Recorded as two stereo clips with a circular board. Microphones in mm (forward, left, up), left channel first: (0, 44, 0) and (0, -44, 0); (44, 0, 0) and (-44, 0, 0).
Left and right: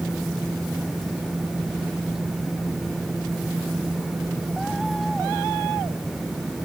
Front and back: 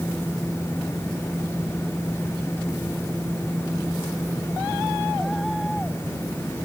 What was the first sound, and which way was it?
Only background noise.